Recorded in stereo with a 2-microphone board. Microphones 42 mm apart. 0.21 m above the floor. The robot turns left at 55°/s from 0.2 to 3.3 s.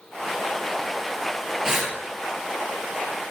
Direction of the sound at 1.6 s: 10° right (ahead or behind).